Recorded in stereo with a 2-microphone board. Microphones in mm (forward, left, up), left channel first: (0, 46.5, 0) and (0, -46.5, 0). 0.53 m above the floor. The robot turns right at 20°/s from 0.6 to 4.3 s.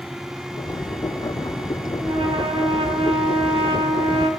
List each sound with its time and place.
2.0 s a trumpet: 110° right, 2 m; by 4.3 s 65° right, 2 m